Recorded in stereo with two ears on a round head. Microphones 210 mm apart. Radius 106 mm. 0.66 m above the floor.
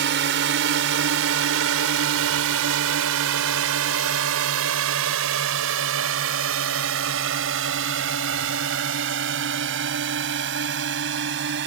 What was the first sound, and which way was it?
A drone, 50° right (ahead or behind).